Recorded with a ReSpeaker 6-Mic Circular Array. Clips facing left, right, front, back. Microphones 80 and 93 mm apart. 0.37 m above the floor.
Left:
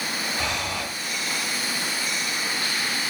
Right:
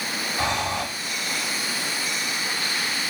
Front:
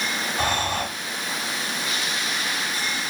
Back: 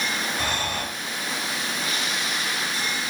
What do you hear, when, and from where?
0.4 s breathing: 45° right, 1.9 m